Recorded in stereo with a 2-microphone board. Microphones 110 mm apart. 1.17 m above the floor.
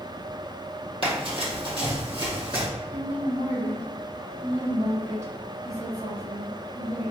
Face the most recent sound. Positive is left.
turn(degrees=-80)